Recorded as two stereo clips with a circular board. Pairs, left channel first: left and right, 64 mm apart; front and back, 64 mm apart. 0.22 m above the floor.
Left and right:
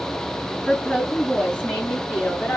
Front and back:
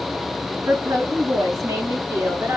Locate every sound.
0.7 s a woman speaking: 170° left, 2.5 m; by 2.6 s 145° left, 2.5 m